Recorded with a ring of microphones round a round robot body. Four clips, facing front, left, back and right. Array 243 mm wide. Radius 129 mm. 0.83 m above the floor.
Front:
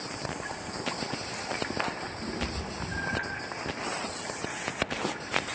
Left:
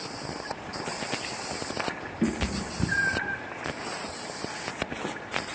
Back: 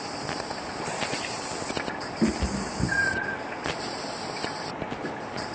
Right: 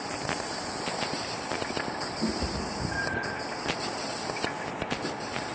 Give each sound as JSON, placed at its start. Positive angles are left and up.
{"t": 2.2, "sound": "a cat meowing", "azimuth_deg": 145, "distance_m": 4.0}